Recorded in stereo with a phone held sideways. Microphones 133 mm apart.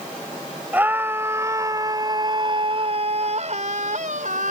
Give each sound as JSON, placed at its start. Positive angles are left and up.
{"t": 0.7, "sound": "a scream", "side_deg": -10}